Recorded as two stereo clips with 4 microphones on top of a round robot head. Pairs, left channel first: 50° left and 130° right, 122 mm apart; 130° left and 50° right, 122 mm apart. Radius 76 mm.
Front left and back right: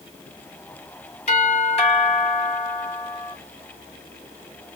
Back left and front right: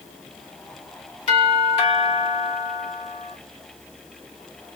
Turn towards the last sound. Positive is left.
turn(degrees=85)